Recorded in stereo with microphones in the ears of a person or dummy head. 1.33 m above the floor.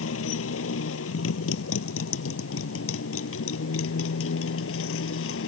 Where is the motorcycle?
85° left; by 5.5 s 80° left.